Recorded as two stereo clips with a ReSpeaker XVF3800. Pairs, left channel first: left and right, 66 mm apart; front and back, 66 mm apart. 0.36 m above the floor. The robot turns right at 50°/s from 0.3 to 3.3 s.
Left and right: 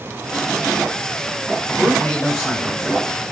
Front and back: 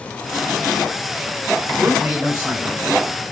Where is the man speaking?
100° left, 1.1 m; by 3.3 s 175° right, 1.1 m.